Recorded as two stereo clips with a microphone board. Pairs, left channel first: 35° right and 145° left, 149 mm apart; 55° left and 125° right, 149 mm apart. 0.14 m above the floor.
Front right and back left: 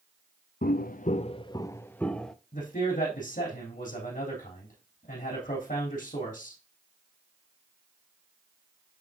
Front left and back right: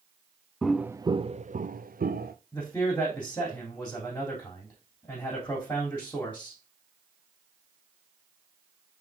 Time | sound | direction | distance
0.6 | footsteps | 30° right | 0.5 m
2.5 | a man speaking | 20° right | 3.5 m